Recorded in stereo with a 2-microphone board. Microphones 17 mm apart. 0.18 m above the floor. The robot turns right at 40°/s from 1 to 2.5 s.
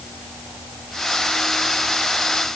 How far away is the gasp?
No gasp in this recording.